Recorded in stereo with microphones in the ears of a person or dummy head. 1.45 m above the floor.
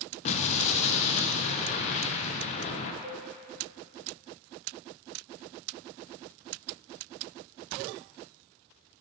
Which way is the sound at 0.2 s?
40° left (ahead or behind).